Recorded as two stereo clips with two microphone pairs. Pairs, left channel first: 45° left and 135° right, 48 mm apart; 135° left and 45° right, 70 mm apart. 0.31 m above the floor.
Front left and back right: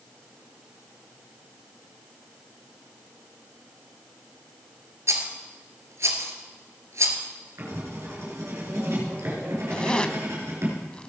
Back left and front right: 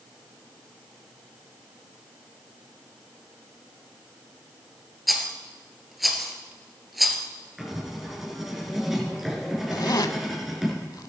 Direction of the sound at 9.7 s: 115° left.